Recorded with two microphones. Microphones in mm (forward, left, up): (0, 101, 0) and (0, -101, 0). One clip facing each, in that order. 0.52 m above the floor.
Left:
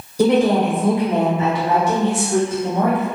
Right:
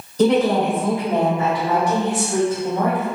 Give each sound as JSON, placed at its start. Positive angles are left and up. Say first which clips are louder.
{"t": 0.2, "sound": "a woman speaking", "louder": "left 1 dB", "side_deg": 10, "distance_m": 0.9}